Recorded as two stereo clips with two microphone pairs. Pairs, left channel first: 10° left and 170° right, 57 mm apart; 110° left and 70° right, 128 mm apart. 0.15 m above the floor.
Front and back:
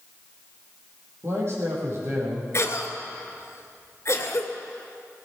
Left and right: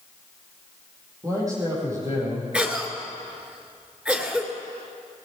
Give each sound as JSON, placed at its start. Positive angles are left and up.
{"t": 1.2, "sound": "a man speaking", "azimuth_deg": -130, "distance_m": 6.0}
{"t": 2.5, "sound": "a cough", "azimuth_deg": 10, "distance_m": 2.0}